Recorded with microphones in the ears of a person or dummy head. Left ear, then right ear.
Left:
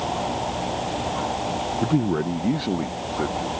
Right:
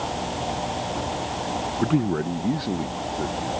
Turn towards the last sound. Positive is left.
turn(degrees=20)  # may be behind; listen again after turning